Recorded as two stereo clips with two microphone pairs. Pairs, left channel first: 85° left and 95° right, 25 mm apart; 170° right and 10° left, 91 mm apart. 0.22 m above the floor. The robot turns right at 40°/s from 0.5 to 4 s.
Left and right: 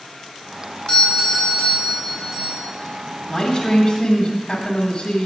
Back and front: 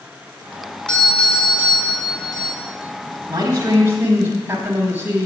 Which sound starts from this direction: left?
A doorbell, at 0.9 s.